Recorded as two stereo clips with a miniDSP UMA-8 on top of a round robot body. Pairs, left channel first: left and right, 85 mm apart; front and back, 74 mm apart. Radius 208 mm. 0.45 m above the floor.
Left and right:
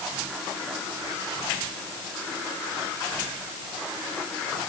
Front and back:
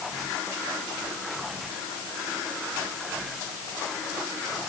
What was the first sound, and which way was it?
Only background noise.